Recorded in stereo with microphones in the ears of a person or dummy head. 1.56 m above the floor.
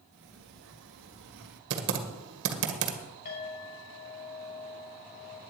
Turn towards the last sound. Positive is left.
turn(degrees=60)  # may be behind; listen again after turning